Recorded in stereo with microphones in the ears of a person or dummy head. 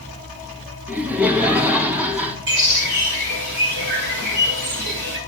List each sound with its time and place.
0.9 s laughter: 10° right (ahead or behind), 1.4 m
2.5 s a bird: 60° right (ahead or behind), 3 m